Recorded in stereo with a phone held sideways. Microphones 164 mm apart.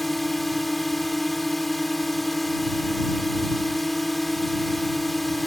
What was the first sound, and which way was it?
A drone, centre (ahead or behind).